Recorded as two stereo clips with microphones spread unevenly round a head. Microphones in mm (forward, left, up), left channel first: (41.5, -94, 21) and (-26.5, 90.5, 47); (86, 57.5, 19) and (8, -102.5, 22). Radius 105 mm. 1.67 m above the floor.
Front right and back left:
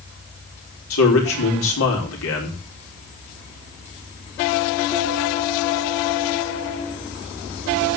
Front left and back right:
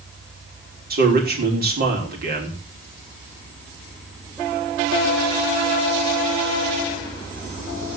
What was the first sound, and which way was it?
A man speaking, 80° right.